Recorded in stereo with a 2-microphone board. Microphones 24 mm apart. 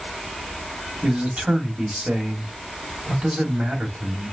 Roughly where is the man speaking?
Right.